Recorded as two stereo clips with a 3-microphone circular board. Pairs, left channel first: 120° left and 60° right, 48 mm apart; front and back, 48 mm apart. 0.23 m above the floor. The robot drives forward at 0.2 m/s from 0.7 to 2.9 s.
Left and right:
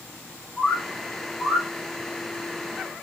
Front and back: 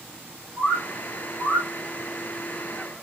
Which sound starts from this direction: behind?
A bird, at 0.6 s.